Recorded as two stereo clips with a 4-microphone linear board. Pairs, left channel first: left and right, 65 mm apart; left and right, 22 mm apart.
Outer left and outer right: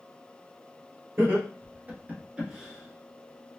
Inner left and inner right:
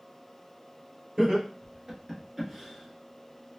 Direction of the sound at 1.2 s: 40° right (ahead or behind).